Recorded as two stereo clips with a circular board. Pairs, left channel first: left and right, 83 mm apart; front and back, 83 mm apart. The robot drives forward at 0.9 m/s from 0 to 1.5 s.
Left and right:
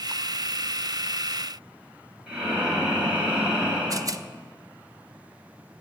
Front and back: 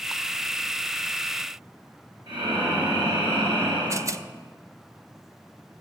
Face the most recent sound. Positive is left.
turn(degrees=-130)